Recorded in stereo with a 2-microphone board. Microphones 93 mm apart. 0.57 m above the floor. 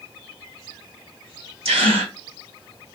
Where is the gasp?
75° right (ahead or behind), 1.4 m.